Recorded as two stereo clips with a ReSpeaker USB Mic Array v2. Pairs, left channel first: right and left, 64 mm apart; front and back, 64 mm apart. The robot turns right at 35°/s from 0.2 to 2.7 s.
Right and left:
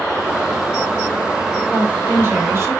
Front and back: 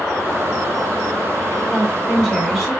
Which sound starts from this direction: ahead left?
A woman speaking, at 1.7 s.